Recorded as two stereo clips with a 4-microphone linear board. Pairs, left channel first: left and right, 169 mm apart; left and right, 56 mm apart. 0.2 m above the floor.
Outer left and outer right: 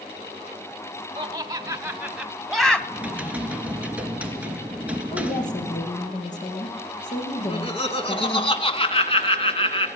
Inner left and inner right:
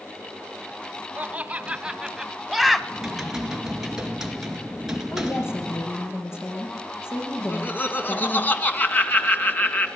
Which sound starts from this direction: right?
Laughter, at 1.1 s.